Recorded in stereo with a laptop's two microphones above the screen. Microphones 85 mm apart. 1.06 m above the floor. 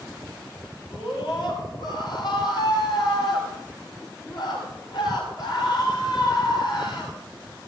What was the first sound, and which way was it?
A scream, 60° left (ahead or behind).